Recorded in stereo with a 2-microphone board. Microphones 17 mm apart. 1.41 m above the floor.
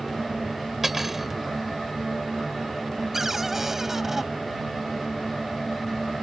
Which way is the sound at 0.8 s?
10° right (ahead or behind).